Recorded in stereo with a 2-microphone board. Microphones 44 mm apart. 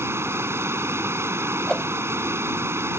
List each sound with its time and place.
0.0 s running water: 70° right (ahead or behind)
1.7 s a whoosh: 20° left (ahead or behind)